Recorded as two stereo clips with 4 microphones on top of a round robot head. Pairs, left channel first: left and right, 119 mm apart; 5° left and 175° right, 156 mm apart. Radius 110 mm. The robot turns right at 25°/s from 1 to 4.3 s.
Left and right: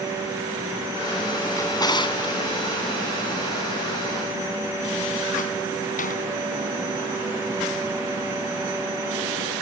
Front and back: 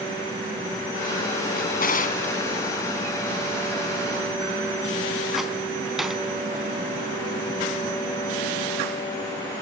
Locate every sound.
1.6 s a drawer: 25° left, 3 m; by 6.2 s 95° left, 3 m